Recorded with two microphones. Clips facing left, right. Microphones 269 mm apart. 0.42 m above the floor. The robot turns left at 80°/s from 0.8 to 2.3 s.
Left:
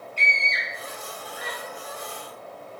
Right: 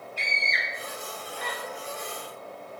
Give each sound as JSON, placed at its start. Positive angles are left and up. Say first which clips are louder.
{"t": 0.2, "sound": "a scream", "louder": "left 2 dB", "side_deg": 30, "distance_m": 1.2}